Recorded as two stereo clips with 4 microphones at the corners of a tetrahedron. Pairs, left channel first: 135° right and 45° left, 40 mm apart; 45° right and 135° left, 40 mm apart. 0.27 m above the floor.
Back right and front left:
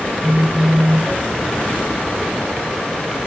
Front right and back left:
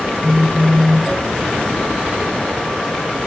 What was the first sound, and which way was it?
A phone buzzing, 30° left.